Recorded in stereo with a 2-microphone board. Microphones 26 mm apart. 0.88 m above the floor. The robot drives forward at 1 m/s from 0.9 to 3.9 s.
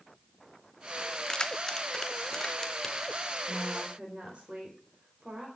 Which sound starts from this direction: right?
A woman speaking, at 3.5 s.